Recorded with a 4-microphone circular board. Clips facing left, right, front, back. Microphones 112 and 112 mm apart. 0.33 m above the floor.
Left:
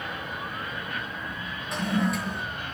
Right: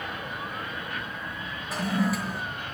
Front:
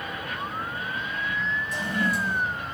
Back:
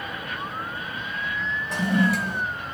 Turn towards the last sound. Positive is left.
turn(degrees=-175)